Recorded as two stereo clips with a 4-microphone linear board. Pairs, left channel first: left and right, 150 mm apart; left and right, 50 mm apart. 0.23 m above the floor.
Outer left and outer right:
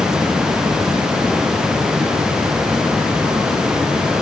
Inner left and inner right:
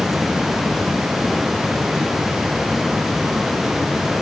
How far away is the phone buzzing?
No phone buzzing in this recording.